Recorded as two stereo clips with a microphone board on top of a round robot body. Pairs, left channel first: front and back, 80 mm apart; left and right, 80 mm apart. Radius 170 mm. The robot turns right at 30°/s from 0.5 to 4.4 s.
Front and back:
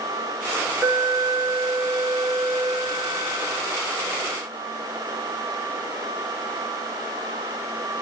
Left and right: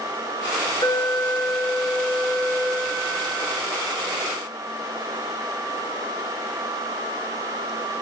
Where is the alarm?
110° left, 3 m; by 3.6 s 170° right, 3 m.